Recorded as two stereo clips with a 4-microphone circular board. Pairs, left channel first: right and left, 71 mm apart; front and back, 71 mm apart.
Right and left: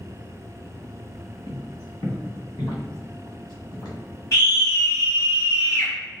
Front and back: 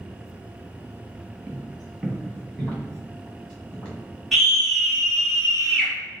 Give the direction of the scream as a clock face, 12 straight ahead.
3 o'clock.